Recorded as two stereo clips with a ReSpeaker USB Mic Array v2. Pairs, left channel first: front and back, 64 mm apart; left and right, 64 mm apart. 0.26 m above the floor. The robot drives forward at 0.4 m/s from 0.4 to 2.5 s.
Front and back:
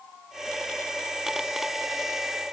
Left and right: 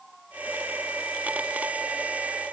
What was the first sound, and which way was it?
Only background noise.